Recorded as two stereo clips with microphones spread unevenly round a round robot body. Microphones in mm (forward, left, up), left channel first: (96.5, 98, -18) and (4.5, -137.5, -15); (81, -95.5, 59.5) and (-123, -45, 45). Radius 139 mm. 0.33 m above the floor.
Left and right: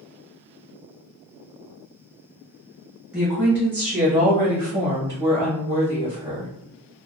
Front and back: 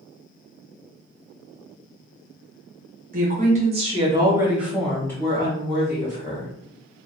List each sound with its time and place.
3.1 s a woman speaking: 165° left, 1.3 m; by 6.5 s 40° right, 1.3 m